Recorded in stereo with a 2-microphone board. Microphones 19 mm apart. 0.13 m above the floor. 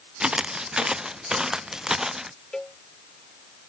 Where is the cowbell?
35° left (ahead or behind).